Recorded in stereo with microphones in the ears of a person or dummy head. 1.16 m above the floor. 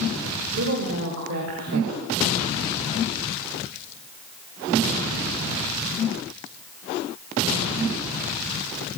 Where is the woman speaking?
70° right (ahead or behind), 2 m.